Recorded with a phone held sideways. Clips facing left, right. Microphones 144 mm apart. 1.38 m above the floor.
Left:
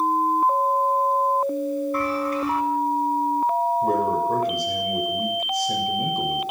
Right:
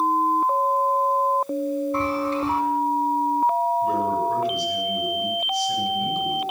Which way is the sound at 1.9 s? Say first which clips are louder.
Even; 30° right (ahead or behind).